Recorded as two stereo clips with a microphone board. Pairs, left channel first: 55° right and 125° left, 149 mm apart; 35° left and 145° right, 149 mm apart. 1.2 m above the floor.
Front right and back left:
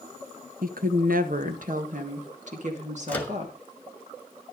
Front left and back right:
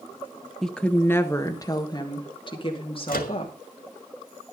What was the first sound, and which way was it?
A woman speaking, 125° left.